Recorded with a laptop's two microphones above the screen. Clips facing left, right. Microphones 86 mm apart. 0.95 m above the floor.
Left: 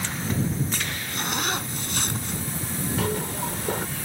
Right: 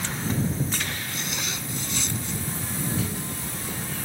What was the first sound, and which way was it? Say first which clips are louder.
A zipper: left 5 dB; 50° left (ahead or behind).